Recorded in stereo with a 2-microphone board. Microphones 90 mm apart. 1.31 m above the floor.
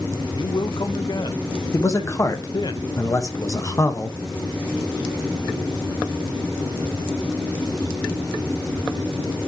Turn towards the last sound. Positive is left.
turn(degrees=35)  # may be behind; listen again after turning